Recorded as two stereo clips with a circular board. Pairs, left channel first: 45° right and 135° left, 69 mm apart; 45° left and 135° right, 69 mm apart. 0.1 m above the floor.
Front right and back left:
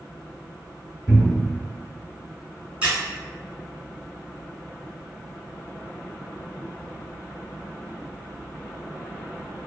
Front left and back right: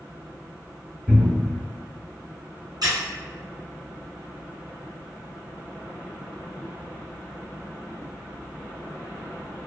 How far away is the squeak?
About 1.0 m.